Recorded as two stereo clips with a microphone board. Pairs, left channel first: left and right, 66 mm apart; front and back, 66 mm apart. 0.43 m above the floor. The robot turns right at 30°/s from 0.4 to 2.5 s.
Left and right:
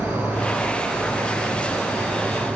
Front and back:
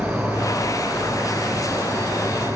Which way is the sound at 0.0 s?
90° left.